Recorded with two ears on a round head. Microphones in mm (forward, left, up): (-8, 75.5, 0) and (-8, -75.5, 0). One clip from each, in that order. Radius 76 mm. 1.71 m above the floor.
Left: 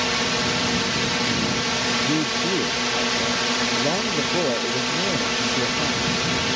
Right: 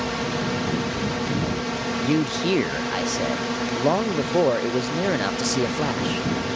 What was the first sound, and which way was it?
A drone, 70° left (ahead or behind).